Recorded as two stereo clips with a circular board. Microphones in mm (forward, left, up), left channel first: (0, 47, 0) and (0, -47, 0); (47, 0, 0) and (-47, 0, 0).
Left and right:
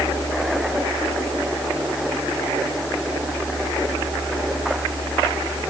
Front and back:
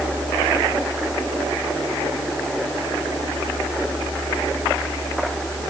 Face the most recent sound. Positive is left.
No sound to turn to.